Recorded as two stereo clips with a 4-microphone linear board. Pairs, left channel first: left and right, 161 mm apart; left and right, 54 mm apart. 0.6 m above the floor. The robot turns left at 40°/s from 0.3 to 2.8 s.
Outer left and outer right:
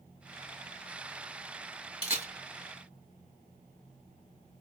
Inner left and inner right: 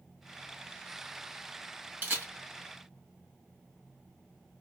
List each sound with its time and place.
2.0 s a camera shutter: 40° right (ahead or behind), 1.5 m; by 2.3 s 55° right (ahead or behind), 1.5 m